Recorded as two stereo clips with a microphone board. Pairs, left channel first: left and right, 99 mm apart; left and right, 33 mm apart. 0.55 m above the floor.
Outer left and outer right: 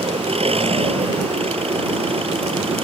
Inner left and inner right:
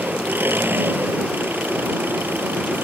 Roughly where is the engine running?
Right.